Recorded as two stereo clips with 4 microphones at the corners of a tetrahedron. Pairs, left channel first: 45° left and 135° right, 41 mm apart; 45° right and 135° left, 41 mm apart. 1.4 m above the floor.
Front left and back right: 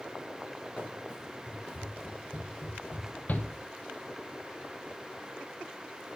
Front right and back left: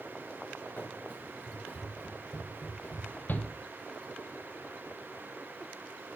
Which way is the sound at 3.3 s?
5° right.